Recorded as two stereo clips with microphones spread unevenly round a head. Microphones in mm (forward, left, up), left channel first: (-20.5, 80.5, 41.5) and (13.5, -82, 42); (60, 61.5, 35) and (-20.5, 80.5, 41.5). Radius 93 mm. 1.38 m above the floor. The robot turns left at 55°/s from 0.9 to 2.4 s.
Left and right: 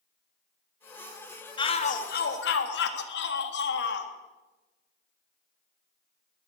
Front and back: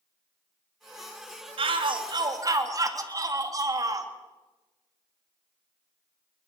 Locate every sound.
1.6 s a shout: 165° left, 3 m; by 4.1 s 120° left, 3 m